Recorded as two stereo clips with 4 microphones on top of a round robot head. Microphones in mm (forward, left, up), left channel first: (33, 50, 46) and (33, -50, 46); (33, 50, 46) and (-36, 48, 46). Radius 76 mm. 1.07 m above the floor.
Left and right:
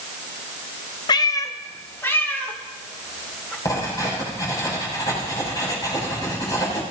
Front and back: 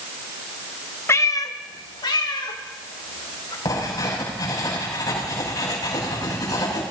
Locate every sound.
1.1 s a cat meowing: 50° left, 0.6 m; by 3.5 s 15° left, 3 m
3.6 s writing: 35° left, 6 m